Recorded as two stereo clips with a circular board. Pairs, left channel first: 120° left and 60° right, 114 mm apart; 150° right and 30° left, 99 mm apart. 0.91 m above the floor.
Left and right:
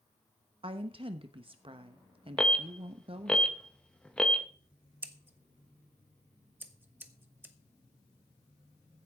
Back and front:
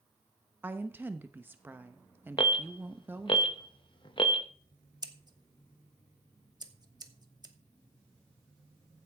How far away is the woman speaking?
About 1.0 m.